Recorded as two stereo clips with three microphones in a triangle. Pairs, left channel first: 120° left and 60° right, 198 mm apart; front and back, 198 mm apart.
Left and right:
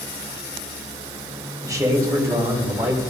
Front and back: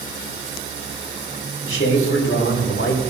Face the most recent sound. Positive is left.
turn(degrees=15)